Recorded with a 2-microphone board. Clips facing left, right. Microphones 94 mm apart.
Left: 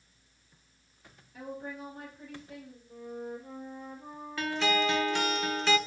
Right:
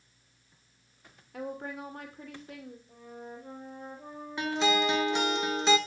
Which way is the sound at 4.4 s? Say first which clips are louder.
Right 1 dB; 20° right (ahead or behind).